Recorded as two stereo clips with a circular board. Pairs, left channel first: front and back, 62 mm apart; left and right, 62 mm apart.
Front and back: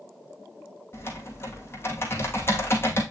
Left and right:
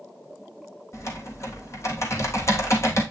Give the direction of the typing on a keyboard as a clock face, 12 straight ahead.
10 o'clock.